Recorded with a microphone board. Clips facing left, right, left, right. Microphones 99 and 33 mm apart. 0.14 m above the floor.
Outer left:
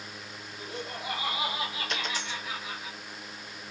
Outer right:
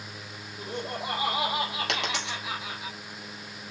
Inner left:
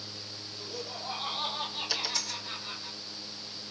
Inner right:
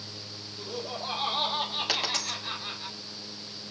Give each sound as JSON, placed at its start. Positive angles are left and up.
{"t": 0.6, "sound": "laughter", "side_deg": -50, "distance_m": 4.0}
{"t": 1.9, "sound": "a dropped coin", "side_deg": -75, "distance_m": 4.5}